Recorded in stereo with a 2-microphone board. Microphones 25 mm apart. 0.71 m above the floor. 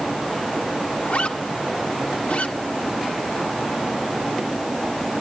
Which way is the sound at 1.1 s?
60° left (ahead or behind).